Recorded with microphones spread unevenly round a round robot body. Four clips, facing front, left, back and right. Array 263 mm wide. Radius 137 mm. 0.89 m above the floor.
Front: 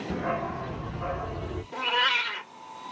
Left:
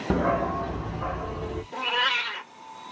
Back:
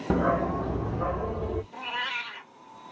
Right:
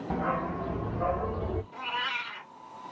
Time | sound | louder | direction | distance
0.1 | a dog barking | left 6 dB, back 6 dB | 130° left | 0.7 m
1.7 | a cat meowing | left 6 dB, front 6 dB | 35° left | 1.7 m